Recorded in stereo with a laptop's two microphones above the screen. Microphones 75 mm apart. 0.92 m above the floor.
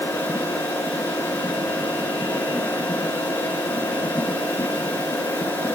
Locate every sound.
0.0 s a machine running: 25° left (ahead or behind), 5.5 m